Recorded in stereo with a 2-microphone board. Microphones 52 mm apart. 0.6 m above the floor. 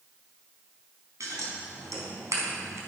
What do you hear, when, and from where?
1.2 s scissors: 80° right, 3.5 m